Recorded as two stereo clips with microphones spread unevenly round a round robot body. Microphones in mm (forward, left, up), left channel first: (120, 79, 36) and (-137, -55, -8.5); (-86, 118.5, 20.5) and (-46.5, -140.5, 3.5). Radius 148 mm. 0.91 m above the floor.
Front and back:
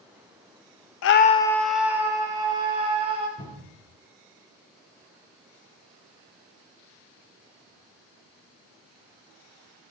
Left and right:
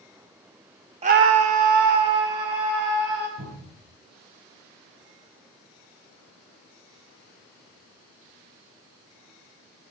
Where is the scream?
15° right, 0.5 m; by 3.3 s 80° right, 3 m.